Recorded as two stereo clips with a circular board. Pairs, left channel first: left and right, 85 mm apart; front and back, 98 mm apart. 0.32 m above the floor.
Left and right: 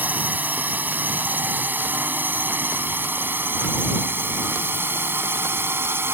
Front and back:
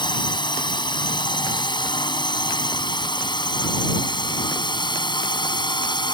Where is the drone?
25° right; by 6.1 s 30° right.